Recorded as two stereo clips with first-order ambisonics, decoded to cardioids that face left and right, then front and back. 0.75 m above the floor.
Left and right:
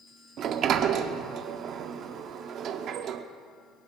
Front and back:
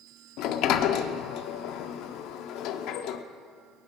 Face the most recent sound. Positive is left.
turn(degrees=-35)